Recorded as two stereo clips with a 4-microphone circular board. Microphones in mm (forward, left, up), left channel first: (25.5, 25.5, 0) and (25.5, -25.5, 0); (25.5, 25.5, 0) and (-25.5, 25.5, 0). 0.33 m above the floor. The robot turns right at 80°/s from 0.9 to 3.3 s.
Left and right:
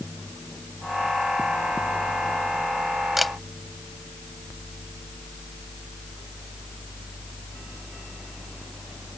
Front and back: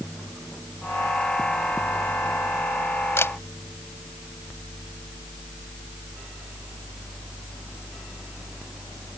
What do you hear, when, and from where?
3.2 s a camera shutter: 5° right; by 3.3 s 5° left